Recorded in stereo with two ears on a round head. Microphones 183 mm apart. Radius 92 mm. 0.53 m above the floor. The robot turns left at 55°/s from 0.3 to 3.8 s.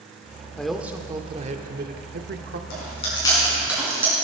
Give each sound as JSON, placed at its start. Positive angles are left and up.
{"t": 0.6, "sound": "a man speaking", "azimuth_deg": 5, "distance_m": 1.0}
{"t": 2.7, "sound": "chewing", "side_deg": 45, "distance_m": 5.0}